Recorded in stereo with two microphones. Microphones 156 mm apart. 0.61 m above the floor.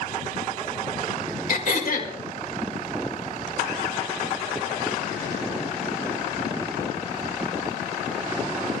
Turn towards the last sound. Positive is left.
turn(degrees=60)  # may be behind; listen again after turning